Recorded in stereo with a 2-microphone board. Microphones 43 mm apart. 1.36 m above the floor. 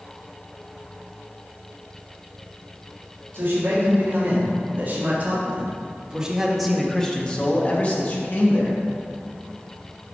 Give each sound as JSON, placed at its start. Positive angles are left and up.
{"t": 3.3, "sound": "a man speaking", "side_deg": -60, "distance_m": 3.0}